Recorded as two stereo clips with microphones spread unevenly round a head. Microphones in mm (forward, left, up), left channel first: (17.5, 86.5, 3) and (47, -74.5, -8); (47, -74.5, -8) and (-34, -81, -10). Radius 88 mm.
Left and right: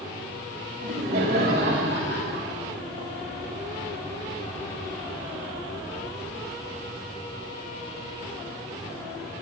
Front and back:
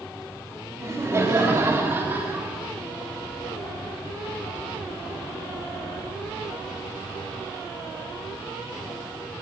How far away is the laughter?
About 2.5 m.